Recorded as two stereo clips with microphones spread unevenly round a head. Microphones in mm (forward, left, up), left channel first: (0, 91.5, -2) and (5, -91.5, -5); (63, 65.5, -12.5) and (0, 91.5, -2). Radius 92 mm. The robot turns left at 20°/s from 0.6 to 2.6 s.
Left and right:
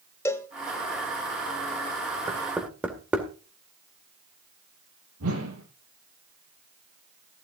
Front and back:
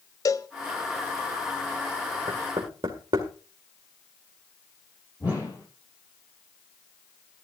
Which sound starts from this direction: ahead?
A cowbell, at 0.2 s.